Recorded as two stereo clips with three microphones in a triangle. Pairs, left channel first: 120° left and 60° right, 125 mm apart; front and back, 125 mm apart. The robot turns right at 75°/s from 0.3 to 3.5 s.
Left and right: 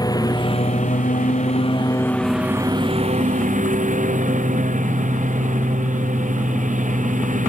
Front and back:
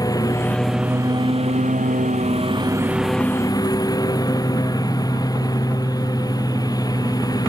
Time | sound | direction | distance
0.0 | a lawn mower | 60° left | ?